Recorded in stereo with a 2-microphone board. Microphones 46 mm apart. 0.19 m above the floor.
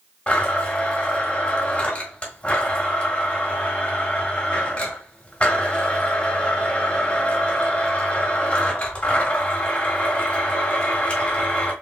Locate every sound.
0.3 s a blender: 25° left (ahead or behind), 1.8 m